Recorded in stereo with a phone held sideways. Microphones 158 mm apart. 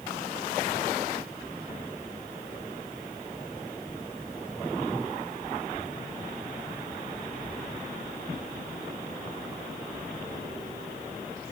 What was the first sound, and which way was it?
Only background noise.